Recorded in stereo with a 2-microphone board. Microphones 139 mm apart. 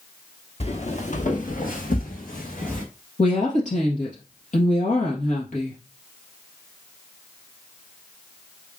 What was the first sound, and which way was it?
Footsteps, 50° left (ahead or behind).